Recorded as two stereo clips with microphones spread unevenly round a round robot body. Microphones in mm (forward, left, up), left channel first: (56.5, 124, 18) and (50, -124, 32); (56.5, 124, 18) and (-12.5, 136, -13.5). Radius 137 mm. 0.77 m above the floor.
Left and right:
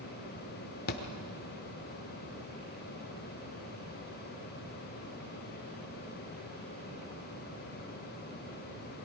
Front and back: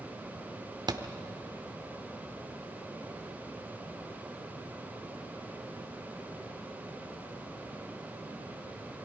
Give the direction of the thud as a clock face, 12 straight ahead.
7 o'clock.